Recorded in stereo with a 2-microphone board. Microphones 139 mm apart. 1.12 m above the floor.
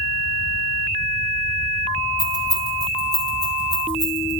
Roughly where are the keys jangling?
Left.